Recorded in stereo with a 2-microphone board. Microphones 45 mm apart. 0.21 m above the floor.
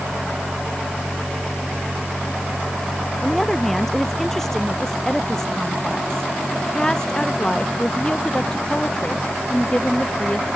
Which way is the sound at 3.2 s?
5° left (ahead or behind).